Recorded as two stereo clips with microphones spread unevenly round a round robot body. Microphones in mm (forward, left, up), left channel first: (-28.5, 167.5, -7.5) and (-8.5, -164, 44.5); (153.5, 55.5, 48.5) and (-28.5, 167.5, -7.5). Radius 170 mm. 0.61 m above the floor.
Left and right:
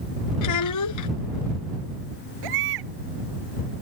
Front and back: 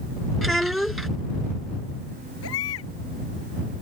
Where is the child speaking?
60° left.